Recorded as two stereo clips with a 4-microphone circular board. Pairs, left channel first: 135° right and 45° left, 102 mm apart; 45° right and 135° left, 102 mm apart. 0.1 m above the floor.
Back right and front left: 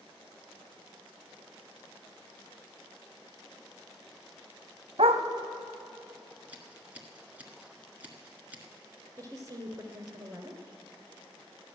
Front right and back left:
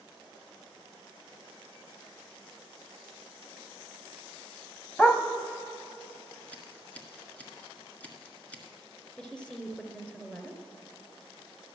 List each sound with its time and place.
5.0 s a dog barking: 30° left, 1.3 m
6.5 s scissors: straight ahead, 1.6 m
9.2 s a woman speaking: 30° left, 1.7 m